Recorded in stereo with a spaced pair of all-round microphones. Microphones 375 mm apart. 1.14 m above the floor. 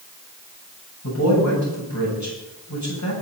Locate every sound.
1.0 s a man speaking: 45° left (ahead or behind), 10 m